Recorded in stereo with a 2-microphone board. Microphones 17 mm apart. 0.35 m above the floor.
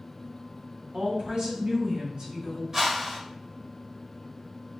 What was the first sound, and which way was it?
A woman speaking, 55° right (ahead or behind).